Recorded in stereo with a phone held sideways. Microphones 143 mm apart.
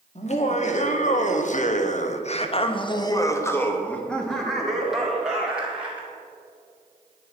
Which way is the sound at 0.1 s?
45° left (ahead or behind).